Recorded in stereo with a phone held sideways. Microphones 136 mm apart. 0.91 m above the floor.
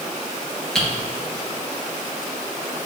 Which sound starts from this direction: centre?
Typing on a keyboard, at 0.8 s.